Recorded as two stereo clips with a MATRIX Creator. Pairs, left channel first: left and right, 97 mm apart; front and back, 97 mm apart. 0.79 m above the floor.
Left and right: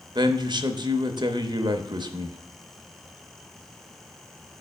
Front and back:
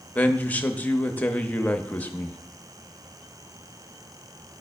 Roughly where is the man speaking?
Right.